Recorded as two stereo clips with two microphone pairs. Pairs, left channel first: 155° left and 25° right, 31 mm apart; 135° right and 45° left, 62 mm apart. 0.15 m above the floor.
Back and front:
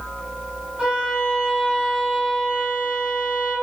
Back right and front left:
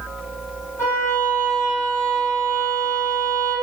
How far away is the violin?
About 1.8 m.